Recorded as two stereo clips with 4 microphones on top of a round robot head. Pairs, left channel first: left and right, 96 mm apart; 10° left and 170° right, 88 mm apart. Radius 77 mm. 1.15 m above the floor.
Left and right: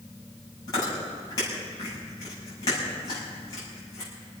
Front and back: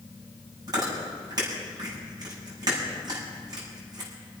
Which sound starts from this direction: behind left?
Chewing, at 0.7 s.